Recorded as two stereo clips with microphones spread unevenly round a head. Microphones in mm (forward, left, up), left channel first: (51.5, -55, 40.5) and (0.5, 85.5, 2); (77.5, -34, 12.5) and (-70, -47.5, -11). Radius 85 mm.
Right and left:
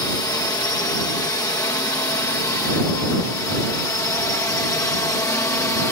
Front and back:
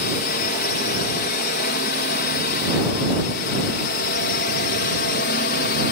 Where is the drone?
Straight ahead; by 5.9 s 5° left.